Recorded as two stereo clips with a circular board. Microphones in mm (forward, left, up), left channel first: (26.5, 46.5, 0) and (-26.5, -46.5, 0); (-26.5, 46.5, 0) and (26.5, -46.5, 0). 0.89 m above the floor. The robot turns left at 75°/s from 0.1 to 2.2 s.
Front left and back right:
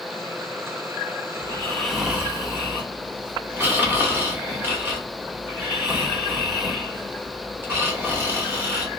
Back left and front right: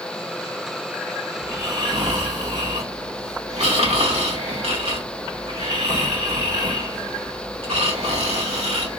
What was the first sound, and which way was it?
Snoring, 10° left.